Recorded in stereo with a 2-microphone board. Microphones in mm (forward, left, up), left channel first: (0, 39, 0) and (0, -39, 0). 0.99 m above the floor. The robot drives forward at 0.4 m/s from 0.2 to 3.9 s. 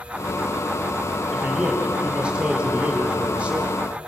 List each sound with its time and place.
1.3 s a man speaking: 15° right (ahead or behind), 3.5 m; by 3.8 s 20° right (ahead or behind), 2.5 m